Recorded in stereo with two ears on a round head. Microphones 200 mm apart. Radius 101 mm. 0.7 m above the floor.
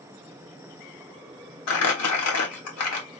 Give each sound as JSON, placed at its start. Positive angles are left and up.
{"t": 1.7, "sound": "crumpling", "side_deg": 75, "distance_m": 1.4}